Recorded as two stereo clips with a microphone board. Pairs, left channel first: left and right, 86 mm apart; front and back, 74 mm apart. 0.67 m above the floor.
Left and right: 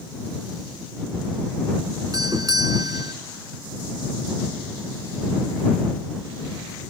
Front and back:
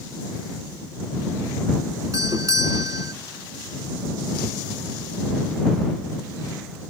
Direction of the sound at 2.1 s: 135° right.